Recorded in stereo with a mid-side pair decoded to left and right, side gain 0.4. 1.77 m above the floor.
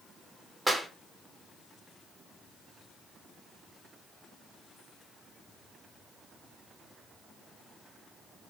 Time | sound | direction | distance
0.7 | a clap | 15° right | 1.2 m